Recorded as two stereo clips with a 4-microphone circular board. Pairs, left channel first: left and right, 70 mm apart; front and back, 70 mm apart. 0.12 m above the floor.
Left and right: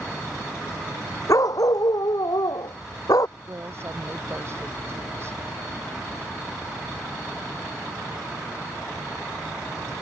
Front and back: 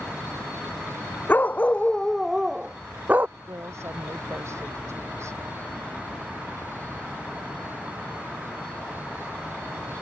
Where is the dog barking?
60° left; by 3.3 s 120° left.